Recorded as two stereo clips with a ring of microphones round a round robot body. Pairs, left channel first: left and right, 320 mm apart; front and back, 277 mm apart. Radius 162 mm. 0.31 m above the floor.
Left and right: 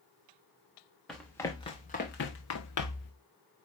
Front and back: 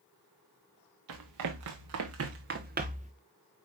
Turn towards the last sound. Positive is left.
turn(degrees=110)